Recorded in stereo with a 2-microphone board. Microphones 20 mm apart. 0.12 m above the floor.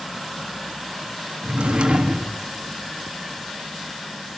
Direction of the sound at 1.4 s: 75° right (ahead or behind).